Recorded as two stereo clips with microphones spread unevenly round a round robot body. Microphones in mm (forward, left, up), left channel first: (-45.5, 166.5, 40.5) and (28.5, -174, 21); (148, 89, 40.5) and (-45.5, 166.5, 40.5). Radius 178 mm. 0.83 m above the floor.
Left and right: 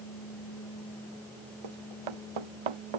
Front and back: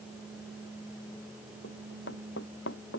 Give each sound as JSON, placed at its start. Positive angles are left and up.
{"t": 1.6, "sound": "running footsteps", "azimuth_deg": -80}